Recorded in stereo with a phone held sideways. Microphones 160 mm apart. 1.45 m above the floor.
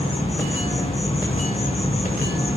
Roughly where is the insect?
Left.